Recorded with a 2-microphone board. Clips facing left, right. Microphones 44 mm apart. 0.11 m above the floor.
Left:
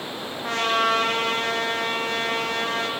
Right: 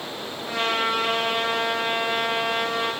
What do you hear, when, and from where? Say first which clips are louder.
0.4 s a trumpet: left 3 dB; 75° left (ahead or behind), 7 m